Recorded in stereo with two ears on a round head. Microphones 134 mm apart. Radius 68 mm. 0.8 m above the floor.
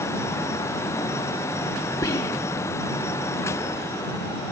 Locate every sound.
2.0 s whispering: 25° left (ahead or behind)